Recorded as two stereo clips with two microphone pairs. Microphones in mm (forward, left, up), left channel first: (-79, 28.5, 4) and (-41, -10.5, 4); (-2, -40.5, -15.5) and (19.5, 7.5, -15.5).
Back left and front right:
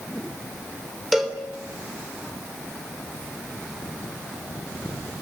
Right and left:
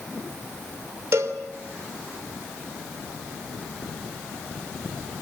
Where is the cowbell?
45° left, 3 m.